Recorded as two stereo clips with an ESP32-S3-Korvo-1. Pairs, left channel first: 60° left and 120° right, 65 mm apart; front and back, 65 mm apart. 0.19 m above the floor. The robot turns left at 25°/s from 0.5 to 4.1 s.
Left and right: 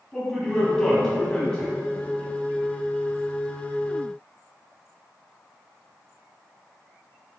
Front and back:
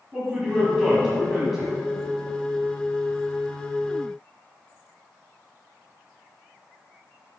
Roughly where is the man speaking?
Behind left.